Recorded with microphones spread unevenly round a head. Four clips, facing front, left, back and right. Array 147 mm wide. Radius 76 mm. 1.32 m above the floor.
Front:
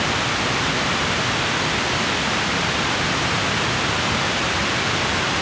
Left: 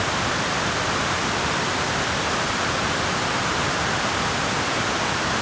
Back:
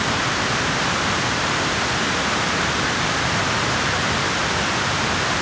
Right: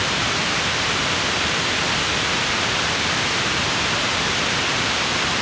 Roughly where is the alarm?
No alarm in this recording.